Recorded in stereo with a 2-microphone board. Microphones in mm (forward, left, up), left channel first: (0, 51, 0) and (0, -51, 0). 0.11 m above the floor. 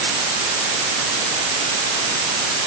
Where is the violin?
I don't hear a violin.